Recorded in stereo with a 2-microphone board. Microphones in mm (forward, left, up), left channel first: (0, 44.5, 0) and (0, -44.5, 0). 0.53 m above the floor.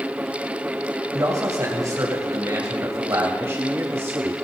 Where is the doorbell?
I don't hear a doorbell.